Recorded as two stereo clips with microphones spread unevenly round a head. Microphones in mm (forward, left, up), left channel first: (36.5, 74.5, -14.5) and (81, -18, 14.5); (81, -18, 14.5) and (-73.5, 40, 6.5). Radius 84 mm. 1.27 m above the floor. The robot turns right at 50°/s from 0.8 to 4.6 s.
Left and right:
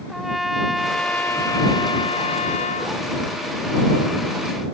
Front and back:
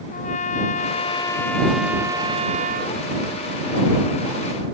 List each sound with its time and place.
0.1 s a trumpet: 25° left; by 3.0 s 135° left